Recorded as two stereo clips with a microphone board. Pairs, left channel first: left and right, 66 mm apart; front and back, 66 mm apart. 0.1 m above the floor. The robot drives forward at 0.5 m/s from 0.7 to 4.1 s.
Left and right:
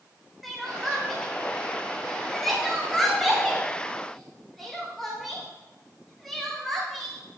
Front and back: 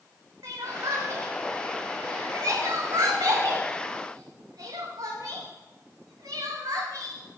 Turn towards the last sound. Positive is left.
turn(degrees=180)